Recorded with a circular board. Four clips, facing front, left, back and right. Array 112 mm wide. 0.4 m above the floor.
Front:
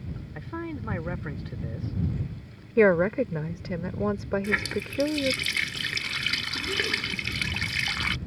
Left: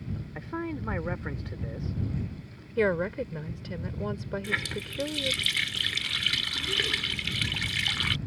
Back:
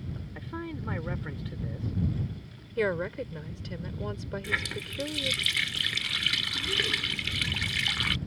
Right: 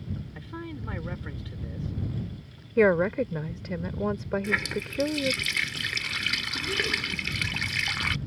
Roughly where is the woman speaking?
Ahead right.